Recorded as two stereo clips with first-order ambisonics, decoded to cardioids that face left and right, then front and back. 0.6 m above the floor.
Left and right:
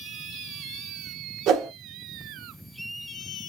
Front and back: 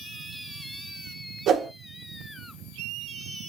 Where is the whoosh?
130° right, 0.7 m.